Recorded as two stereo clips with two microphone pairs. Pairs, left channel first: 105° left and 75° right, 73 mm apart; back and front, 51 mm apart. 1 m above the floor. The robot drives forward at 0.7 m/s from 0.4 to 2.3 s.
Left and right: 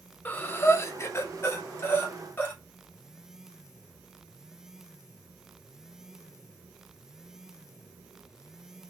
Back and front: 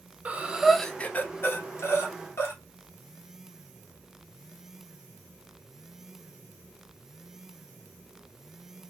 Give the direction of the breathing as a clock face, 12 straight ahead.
10 o'clock.